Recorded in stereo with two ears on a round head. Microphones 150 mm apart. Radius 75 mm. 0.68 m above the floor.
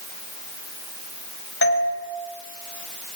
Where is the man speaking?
I don't hear a man speaking.